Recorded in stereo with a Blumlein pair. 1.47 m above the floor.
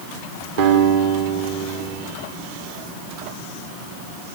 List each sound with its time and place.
0.6 s a guitar: 55° right, 3.5 m